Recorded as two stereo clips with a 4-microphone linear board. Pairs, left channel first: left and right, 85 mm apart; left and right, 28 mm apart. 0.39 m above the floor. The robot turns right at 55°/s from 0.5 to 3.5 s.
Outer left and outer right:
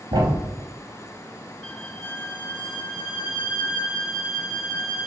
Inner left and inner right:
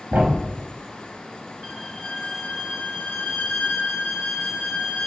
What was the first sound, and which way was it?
A thud, 65° right (ahead or behind).